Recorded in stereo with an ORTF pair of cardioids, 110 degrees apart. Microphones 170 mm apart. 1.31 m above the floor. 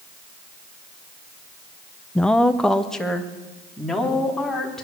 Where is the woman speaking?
5° left, 0.5 m.